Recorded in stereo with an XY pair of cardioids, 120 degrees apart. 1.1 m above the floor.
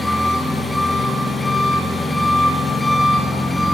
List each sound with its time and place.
0.0 s an engine running: 15° left, 7 m